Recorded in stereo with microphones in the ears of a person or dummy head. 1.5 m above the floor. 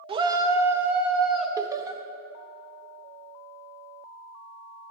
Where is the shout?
30° right (ahead or behind), 0.6 m; by 1.5 s 5° right (ahead or behind), 1.2 m.